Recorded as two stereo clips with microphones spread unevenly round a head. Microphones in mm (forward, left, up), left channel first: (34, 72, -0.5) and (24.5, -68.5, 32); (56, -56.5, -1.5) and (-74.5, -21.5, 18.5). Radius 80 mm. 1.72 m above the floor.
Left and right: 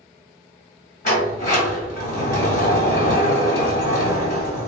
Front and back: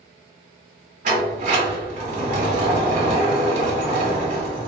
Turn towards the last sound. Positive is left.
turn(degrees=130)